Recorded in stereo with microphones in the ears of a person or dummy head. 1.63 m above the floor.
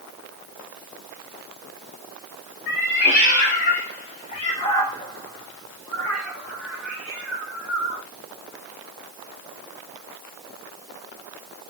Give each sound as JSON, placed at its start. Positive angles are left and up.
{"t": 2.7, "sound": "a cat meowing", "side_deg": 45, "distance_m": 1.4}